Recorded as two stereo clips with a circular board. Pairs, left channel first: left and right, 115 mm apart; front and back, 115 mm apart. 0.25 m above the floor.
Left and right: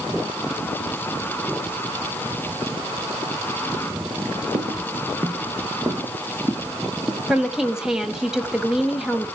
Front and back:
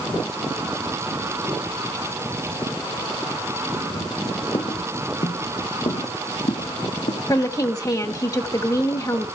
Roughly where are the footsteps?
Ahead right.